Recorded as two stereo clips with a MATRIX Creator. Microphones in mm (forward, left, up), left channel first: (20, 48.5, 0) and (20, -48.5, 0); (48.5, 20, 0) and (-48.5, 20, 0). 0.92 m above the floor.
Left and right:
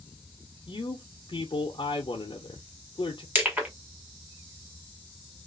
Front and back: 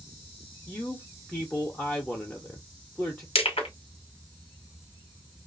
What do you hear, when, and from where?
0.7 s a man speaking: 80° left, 0.6 m
3.4 s crushing: 20° right, 1.6 m